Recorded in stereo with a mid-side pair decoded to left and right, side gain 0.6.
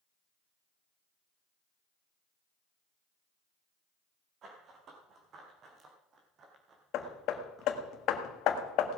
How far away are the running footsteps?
About 4.5 m.